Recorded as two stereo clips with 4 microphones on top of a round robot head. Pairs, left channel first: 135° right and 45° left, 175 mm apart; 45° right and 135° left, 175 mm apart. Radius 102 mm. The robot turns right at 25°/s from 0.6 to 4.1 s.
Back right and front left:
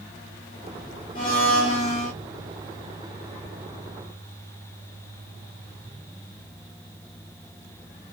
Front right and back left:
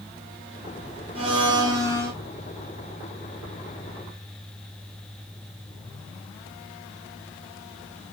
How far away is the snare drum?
No snare drum in this recording.